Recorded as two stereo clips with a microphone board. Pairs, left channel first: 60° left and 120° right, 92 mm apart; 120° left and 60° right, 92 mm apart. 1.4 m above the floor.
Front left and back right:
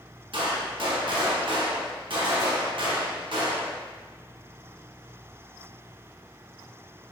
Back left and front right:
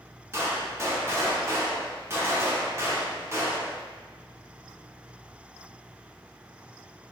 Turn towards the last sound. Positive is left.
turn(degrees=-115)